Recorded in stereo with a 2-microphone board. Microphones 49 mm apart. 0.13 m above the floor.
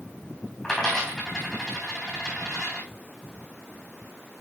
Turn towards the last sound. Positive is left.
turn(degrees=5)  # may be behind; listen again after turning